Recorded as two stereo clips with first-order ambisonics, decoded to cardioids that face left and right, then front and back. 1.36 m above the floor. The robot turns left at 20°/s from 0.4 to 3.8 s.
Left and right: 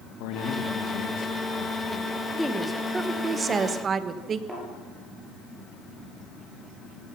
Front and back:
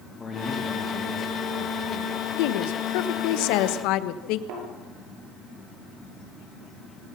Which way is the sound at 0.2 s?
75° left.